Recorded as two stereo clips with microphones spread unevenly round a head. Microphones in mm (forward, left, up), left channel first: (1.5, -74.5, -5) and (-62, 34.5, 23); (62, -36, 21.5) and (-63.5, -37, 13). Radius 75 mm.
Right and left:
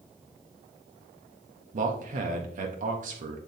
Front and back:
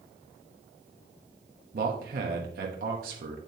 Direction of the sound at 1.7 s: 150° left.